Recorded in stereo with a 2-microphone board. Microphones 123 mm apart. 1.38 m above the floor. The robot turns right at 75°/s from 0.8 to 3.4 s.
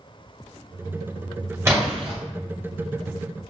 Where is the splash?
25° right (ahead or behind), 1.3 m; by 2.2 s 60° right (ahead or behind), 1.3 m.